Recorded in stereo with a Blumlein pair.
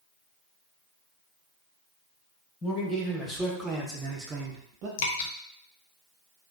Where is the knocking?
No knocking in this recording.